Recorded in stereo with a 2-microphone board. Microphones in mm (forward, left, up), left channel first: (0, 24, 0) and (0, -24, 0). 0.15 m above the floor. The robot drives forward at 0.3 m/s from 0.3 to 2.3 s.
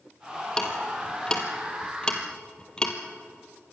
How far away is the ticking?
About 3 m.